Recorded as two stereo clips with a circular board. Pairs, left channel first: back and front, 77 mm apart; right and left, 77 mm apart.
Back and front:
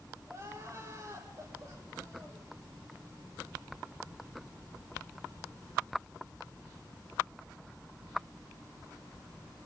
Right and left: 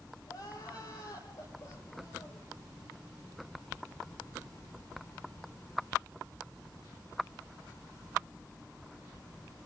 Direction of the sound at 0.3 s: 50° right.